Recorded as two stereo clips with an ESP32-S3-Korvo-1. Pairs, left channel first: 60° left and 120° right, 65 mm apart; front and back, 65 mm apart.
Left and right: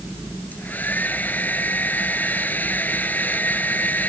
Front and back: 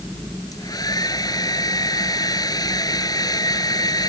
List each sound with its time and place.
0.5 s a hair dryer: 5° right